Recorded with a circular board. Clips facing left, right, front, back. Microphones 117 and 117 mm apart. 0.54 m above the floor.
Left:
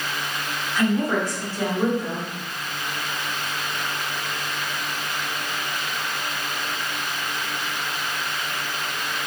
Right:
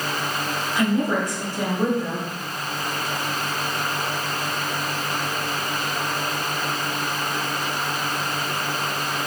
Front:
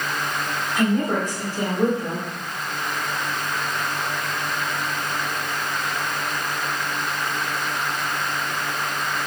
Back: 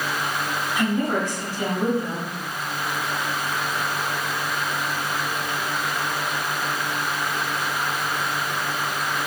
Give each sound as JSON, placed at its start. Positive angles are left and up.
{"t": 0.8, "sound": "a woman speaking", "azimuth_deg": -20, "distance_m": 1.4}